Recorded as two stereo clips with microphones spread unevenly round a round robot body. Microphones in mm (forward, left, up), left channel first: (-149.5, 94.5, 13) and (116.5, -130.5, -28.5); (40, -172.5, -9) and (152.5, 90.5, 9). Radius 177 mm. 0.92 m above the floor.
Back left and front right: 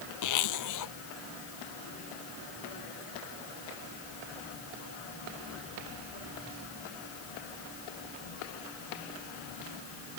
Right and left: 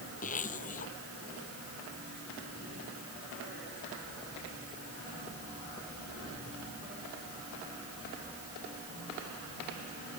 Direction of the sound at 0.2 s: 175° left.